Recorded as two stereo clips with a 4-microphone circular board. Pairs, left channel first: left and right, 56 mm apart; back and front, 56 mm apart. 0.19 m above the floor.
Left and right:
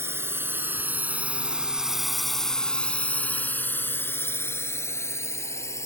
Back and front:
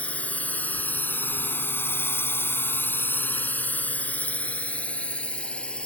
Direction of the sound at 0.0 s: 120° right.